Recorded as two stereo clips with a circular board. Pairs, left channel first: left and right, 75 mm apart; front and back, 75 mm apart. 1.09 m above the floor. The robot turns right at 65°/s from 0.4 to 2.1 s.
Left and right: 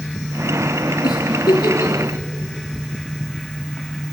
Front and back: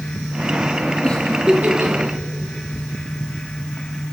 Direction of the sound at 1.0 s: 75° left.